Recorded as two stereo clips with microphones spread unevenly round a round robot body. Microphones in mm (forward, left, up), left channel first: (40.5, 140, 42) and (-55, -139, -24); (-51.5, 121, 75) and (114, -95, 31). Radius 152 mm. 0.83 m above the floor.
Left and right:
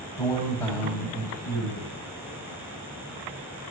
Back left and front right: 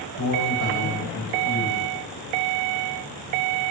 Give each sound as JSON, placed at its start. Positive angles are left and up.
{"t": 0.2, "sound": "a man speaking", "azimuth_deg": 155, "distance_m": 6.5}